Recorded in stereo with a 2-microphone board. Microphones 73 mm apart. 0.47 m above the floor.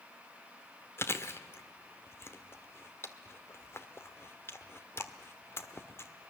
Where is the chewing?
35° left (ahead or behind), 1.3 m.